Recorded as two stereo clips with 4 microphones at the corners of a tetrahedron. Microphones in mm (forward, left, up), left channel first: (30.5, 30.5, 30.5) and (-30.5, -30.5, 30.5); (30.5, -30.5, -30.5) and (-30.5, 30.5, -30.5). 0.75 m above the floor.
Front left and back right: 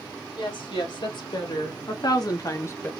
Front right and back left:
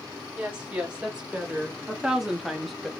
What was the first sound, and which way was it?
A woman speaking, 60° left.